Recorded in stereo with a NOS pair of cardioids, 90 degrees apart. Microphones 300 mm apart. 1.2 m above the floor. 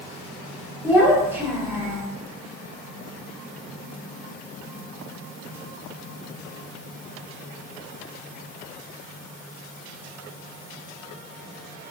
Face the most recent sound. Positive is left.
turn(degrees=-5)